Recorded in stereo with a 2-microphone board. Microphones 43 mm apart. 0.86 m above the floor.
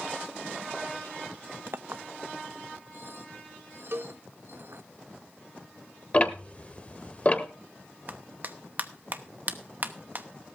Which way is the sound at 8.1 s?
45° right (ahead or behind).